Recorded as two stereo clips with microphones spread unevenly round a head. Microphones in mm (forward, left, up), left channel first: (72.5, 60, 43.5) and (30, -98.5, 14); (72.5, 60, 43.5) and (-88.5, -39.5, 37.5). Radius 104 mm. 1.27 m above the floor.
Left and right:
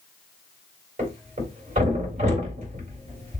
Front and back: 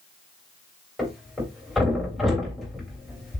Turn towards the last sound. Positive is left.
turn(degrees=-60)